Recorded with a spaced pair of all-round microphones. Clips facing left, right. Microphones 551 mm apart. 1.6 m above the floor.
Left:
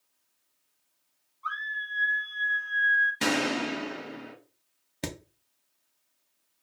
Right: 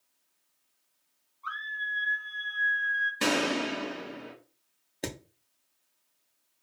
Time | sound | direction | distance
1.4 | a scream | 65° left (ahead or behind) | 1.9 m
3.2 | a gunshot | 5° left (ahead or behind) | 0.8 m
5.0 | hammering | 30° left (ahead or behind) | 0.6 m